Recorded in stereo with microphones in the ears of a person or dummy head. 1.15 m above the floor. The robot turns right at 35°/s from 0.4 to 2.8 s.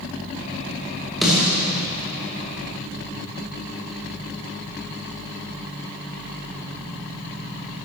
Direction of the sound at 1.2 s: Centre (ahead or behind).